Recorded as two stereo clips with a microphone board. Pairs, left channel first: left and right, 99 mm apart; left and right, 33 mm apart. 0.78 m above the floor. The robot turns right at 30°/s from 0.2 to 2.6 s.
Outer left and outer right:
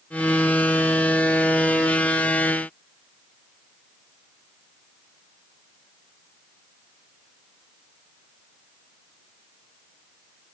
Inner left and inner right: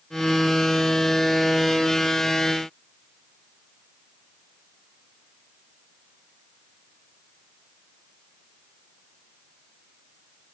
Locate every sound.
Only background noise.